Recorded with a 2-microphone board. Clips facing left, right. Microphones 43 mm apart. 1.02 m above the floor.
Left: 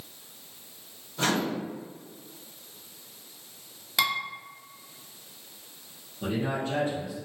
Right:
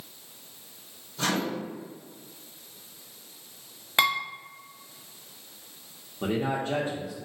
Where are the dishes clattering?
35° right (ahead or behind), 0.7 m.